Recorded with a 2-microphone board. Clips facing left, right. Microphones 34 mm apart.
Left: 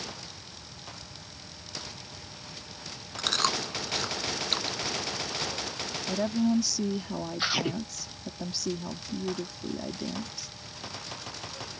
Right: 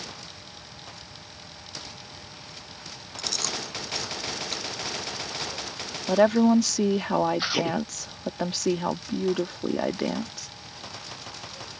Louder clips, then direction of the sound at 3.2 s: Left 4 dB; 45° left (ahead or behind).